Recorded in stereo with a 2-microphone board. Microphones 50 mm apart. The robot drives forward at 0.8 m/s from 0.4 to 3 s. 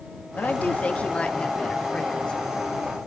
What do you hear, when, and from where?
0.4 s a woman speaking: 35° left (ahead or behind), 1.1 m; by 2.4 s 15° left (ahead or behind), 2.5 m